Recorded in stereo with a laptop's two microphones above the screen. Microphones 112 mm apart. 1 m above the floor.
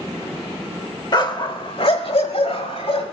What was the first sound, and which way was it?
A dog barking, 40° left (ahead or behind).